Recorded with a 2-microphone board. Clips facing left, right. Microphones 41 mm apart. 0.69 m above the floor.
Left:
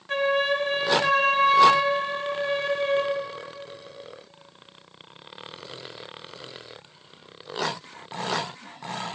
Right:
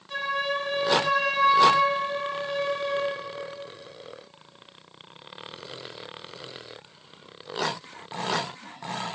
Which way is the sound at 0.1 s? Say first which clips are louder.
Left 5 dB; 60° left (ahead or behind).